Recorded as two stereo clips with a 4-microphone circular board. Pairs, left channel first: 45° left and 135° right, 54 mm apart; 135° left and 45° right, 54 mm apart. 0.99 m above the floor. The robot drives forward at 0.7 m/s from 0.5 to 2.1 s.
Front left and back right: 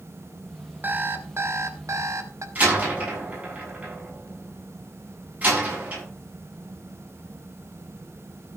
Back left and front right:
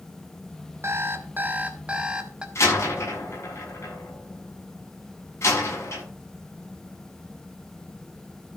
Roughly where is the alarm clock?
Right.